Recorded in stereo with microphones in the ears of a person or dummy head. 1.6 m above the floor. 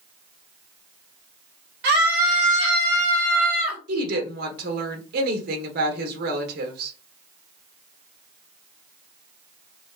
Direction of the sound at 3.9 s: 60° right (ahead or behind).